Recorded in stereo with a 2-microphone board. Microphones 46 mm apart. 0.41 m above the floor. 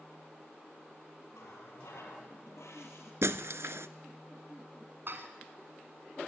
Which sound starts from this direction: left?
A running tap, at 1.3 s.